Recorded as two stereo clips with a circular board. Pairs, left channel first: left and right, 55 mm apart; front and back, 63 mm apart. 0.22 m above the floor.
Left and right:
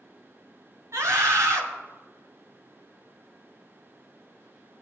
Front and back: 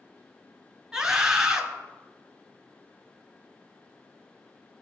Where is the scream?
100° right, 2.5 m.